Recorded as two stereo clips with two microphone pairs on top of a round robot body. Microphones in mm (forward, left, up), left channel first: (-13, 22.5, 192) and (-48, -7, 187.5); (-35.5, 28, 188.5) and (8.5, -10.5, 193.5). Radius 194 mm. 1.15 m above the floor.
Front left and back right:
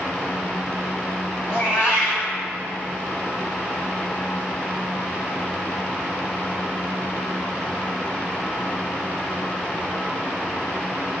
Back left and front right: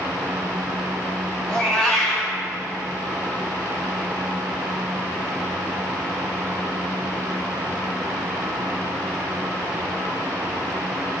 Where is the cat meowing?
65° left, 3 m.